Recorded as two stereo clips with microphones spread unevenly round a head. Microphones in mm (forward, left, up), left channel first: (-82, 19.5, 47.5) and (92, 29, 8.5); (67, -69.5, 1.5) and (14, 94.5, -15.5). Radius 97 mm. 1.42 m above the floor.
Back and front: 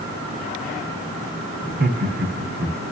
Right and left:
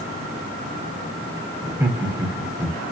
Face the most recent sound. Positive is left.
turn(degrees=35)